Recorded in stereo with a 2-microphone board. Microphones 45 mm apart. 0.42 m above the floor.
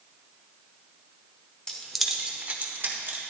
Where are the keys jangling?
20° left (ahead or behind), 0.8 m; by 3.2 s 55° right (ahead or behind), 1.4 m.